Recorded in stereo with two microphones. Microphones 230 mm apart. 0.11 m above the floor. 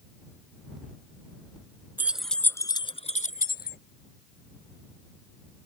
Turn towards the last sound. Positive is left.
turn(degrees=45)  # may be behind; listen again after turning